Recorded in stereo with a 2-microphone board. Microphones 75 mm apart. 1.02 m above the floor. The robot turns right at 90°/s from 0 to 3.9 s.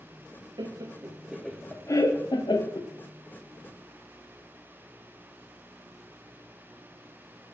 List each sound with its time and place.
0.6 s laughter: 70° right (ahead or behind), 0.5 m; by 2.9 s 45° left (ahead or behind), 0.5 m